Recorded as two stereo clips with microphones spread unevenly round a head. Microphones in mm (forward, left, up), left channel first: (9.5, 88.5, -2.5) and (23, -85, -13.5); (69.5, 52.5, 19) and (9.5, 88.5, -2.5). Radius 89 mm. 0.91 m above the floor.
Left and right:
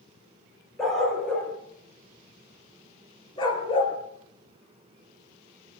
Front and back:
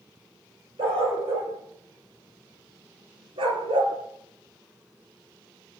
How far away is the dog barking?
About 6 m.